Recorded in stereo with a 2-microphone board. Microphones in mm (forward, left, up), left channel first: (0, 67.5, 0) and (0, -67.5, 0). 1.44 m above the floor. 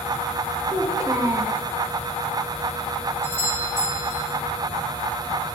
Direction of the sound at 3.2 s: 20° right (ahead or behind).